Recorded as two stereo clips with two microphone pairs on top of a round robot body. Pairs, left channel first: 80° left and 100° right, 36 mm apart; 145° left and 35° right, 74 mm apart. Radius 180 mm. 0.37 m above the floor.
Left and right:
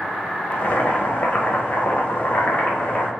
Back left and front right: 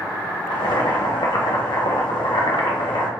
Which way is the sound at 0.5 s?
125° left.